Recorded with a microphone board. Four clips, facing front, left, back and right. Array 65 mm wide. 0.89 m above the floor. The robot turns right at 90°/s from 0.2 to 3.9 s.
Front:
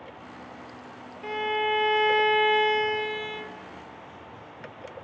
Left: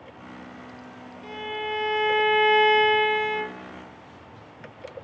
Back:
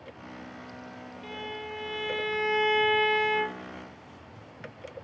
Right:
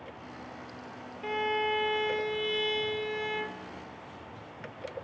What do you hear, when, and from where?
1.2 s a violin: 40° right, 1.9 m; by 3.6 s 170° left, 1.9 m